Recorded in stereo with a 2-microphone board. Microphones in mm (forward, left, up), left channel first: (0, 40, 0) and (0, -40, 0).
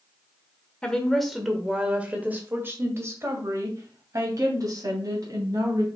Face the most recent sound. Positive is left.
turn(degrees=-55)  # may be behind; listen again after turning